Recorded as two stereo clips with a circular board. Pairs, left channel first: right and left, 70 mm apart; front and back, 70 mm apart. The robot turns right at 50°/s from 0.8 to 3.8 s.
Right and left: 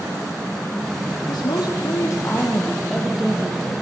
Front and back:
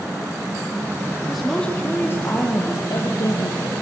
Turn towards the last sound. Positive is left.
turn(degrees=35)